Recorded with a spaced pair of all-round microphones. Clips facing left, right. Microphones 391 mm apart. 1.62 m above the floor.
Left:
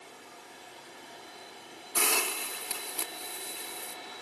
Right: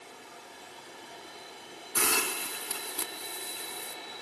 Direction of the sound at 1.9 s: 30° right (ahead or behind).